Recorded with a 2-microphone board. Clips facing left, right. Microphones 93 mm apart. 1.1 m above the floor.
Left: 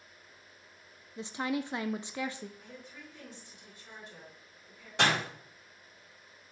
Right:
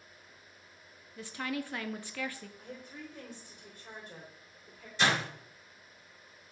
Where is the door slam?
70° left (ahead or behind), 5.5 m.